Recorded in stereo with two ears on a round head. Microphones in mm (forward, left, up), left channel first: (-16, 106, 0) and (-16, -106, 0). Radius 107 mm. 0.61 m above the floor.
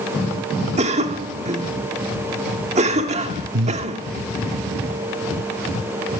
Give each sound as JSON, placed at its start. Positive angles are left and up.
{"t": 0.8, "sound": "a cough", "side_deg": -30, "distance_m": 1.6}
{"t": 3.5, "sound": "breathing", "side_deg": -50, "distance_m": 1.0}